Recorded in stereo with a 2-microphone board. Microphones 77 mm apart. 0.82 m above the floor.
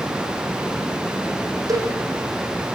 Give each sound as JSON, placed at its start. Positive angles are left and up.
{"t": 1.7, "sound": "a cowbell", "side_deg": -50, "distance_m": 9.0}